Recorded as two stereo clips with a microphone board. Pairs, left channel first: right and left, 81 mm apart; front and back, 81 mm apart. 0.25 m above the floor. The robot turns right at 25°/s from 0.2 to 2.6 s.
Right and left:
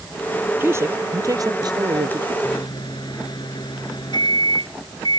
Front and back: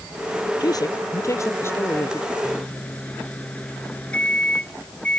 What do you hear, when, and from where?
0.6 s a man speaking: 30° left; by 2.3 s 75° left
2.4 s a microwave: 75° right